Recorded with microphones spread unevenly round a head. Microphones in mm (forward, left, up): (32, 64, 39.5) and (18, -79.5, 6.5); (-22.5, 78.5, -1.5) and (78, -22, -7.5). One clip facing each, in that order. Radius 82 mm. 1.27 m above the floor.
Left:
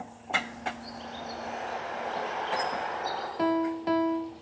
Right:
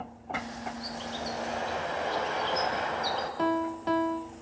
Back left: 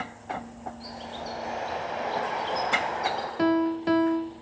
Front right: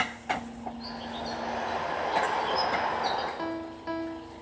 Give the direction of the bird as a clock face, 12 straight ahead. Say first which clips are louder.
Right 3 dB, front right 1 dB; 5 o'clock.